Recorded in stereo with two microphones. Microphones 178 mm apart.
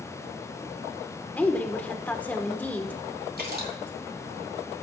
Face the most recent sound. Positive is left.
turn(degrees=-55)  # may be behind; listen again after turning